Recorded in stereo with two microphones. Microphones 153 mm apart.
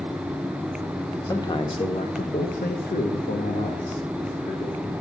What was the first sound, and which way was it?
A man speaking, 25° left (ahead or behind).